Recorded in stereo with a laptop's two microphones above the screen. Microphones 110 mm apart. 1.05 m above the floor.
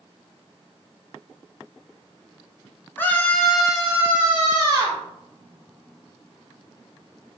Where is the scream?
20° left (ahead or behind), 1.0 m; by 5.0 s 35° right (ahead or behind), 1.4 m.